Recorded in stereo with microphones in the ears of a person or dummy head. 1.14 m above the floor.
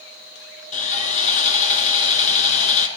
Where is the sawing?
40° left (ahead or behind), 3.5 m.